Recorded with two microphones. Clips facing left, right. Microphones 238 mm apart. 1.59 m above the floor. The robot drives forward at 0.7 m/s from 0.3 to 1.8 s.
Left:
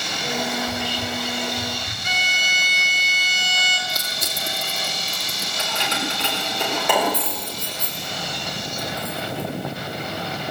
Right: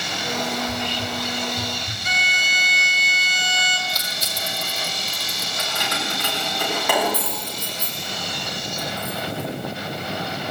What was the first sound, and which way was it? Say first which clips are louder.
Whispering: even; 5° left (ahead or behind).